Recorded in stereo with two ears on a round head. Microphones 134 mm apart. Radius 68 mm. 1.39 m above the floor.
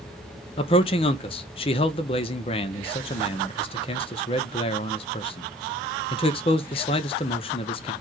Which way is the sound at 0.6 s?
35° left (ahead or behind).